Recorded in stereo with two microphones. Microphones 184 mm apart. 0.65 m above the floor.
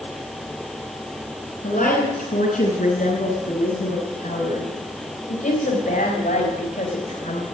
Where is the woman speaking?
45° left (ahead or behind), 6 m.